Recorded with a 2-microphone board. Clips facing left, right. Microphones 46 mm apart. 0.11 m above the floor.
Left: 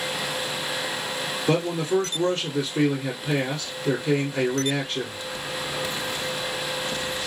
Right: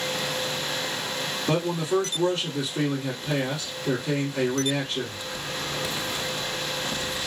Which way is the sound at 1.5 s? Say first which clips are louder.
Left 2 dB; 35° left (ahead or behind).